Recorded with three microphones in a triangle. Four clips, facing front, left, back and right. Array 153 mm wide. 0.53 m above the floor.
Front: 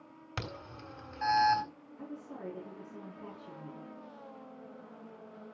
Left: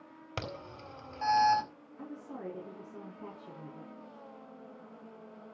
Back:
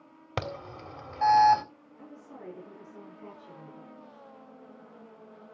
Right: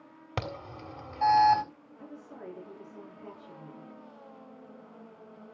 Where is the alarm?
150° right, 3.5 m.